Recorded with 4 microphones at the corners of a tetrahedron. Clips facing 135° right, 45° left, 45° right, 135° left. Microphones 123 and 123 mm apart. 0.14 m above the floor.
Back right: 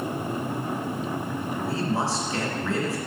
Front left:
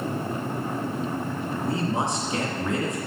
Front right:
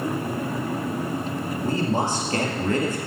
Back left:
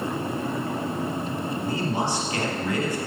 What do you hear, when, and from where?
1.6 s a man speaking: 20° right, 2.5 m